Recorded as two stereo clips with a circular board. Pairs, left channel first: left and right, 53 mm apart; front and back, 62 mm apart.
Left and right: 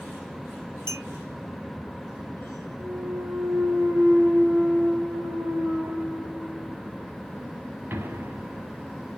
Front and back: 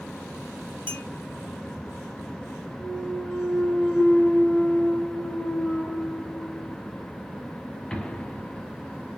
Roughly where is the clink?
Ahead right.